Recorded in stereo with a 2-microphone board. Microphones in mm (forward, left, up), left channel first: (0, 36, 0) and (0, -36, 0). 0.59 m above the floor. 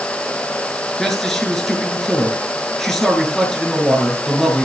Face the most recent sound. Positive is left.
turn(degrees=5)  # may be behind; listen again after turning